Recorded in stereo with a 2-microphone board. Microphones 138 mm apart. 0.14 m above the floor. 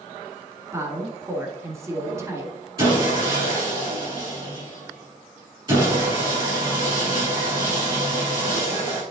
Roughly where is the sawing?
Right.